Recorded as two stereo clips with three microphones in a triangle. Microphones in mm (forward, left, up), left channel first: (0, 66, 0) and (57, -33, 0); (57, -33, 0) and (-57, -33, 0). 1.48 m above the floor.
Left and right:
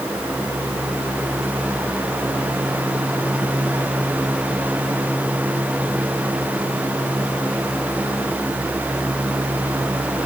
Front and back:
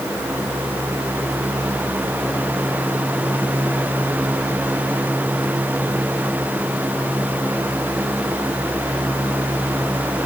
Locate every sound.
Only background noise.